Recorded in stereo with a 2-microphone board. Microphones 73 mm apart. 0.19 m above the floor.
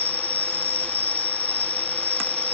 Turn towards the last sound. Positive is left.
turn(degrees=-25)  # may be behind; listen again after turning